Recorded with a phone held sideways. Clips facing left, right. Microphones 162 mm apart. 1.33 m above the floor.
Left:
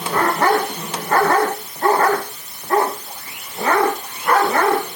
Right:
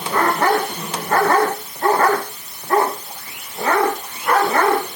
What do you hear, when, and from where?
Only background noise.